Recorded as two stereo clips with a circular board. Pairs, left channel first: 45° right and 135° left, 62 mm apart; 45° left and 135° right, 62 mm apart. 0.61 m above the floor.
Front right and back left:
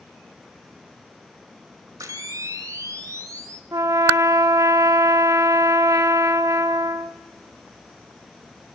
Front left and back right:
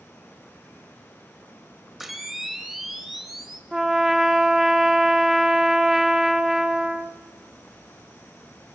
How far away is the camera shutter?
About 1.1 m.